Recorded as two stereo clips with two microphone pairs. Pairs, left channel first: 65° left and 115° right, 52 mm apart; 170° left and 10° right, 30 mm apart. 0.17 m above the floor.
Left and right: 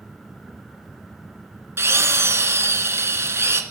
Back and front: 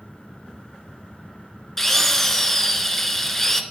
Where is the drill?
120° right, 1.4 m.